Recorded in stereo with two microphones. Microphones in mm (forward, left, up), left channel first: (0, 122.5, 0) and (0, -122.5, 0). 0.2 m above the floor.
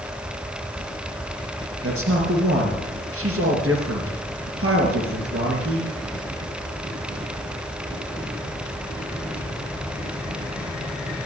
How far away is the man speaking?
About 3 m.